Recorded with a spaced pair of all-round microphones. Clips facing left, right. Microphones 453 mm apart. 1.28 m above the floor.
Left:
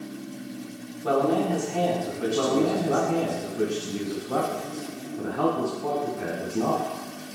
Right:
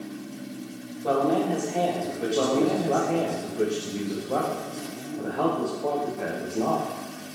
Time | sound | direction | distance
1.0 | a man speaking | 25° left (ahead or behind) | 1.4 m
2.4 | a man speaking | 25° left (ahead or behind) | 0.8 m